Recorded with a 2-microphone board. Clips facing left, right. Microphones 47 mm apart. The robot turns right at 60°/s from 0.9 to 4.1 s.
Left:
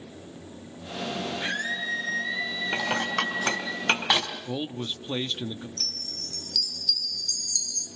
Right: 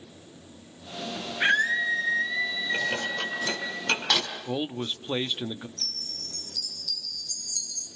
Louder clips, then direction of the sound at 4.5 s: Right 2 dB; 15° right (ahead or behind).